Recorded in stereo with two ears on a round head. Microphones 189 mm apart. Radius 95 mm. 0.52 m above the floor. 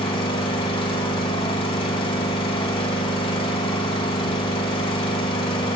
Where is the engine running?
25° left (ahead or behind), 0.9 m.